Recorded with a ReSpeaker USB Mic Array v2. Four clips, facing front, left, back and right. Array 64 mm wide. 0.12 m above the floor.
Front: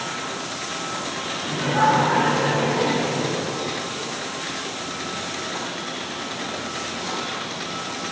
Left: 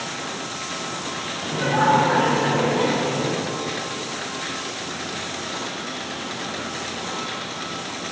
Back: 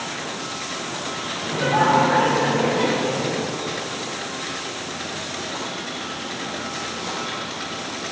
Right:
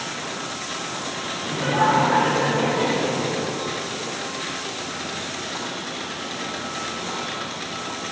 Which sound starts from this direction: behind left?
Laughter, at 1.4 s.